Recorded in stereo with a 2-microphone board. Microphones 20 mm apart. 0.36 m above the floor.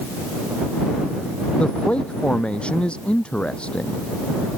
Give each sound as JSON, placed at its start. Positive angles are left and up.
{"t": 1.6, "sound": "a man speaking", "side_deg": 65}